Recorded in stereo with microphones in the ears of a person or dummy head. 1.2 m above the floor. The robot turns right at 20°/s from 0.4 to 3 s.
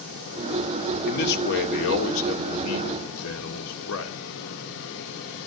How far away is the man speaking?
About 3 m.